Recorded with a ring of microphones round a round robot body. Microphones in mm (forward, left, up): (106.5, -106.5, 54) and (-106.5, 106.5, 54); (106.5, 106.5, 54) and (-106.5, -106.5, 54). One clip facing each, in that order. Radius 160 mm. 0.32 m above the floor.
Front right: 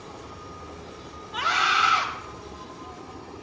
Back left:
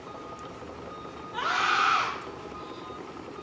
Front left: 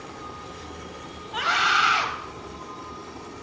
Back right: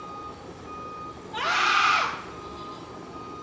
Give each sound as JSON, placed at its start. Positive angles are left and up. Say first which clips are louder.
{"t": 0.0, "sound": "an insect", "louder": "even, front left 1 dB", "azimuth_deg": -30, "distance_m": 4.5}
{"t": 1.3, "sound": "a scream", "louder": "front right 1 dB, even", "azimuth_deg": -15, "distance_m": 2.5}